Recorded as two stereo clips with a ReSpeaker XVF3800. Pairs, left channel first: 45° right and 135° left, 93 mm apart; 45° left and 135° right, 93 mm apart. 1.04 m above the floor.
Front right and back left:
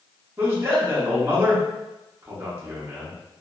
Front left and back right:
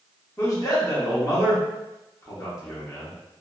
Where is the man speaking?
80° left, 1.0 m.